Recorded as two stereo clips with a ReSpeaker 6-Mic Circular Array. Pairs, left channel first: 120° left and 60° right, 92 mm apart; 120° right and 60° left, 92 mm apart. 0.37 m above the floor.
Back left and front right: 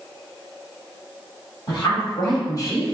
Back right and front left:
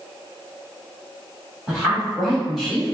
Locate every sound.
1.7 s a woman speaking: 145° left, 1.9 m; by 3.0 s 155° left, 1.0 m